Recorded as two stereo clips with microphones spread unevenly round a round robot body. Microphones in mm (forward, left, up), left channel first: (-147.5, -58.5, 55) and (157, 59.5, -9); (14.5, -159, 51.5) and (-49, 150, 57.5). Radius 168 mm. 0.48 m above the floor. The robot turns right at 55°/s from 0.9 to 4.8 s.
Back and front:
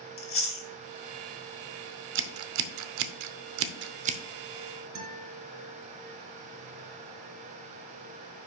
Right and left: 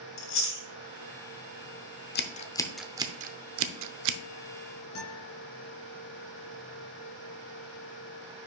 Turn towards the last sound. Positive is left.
turn(degrees=-30)